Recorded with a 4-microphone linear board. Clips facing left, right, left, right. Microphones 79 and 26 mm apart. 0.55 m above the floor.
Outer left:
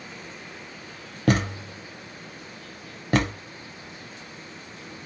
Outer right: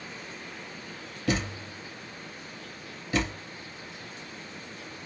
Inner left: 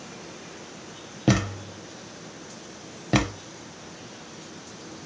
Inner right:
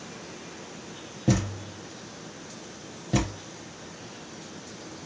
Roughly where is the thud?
Left.